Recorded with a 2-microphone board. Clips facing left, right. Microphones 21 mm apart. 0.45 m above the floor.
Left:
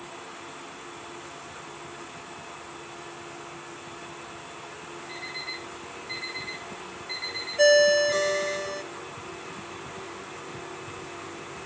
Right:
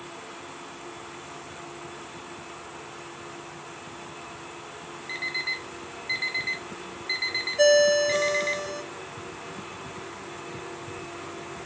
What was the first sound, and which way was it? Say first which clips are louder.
An alarm clock: right 7 dB; 35° right (ahead or behind).